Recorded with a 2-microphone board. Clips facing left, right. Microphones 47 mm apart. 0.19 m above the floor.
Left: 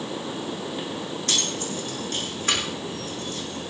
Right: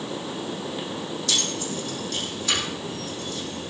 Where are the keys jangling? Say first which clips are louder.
Even; 45° left (ahead or behind), 7 m.